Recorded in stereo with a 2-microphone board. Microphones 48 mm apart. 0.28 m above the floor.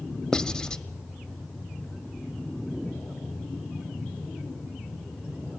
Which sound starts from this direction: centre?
Writing, at 0.3 s.